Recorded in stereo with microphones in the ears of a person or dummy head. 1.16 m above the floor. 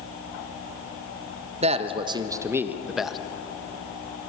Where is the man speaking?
30° right (ahead or behind), 1.2 m; by 3.2 s 10° left (ahead or behind), 1.2 m.